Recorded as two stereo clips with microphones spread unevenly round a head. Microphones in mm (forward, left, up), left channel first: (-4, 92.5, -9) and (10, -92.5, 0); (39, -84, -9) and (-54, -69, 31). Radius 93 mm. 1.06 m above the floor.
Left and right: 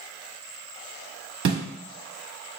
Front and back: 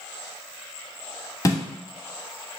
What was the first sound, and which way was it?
A snare drum, 65° right.